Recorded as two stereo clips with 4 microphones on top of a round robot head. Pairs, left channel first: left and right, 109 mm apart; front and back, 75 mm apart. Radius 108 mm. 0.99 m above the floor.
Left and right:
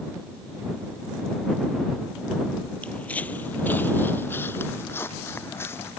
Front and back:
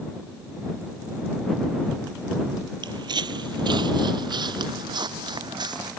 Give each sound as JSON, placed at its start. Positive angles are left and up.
{"t": 2.8, "sound": "footsteps", "azimuth_deg": 170}